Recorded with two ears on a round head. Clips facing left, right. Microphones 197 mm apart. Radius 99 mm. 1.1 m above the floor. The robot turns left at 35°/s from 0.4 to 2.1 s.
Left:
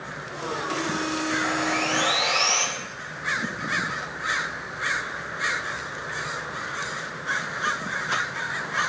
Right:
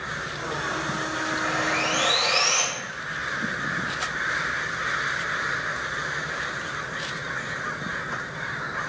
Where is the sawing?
30° right (ahead or behind), 1.1 m; by 2.6 s 45° right (ahead or behind), 1.1 m.